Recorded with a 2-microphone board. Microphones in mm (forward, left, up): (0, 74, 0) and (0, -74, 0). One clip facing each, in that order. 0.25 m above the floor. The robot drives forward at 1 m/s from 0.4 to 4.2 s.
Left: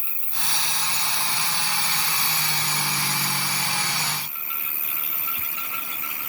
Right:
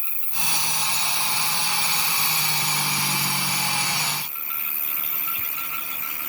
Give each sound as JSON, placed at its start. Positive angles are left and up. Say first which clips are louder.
{"t": 0.0, "sound": "an insect", "louder": "right 1 dB", "side_deg": 75}